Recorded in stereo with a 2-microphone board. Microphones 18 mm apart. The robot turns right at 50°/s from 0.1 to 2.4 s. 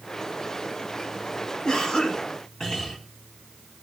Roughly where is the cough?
Left.